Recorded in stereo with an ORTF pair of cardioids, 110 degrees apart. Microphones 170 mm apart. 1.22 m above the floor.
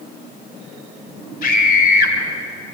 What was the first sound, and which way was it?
A scream, 55° left.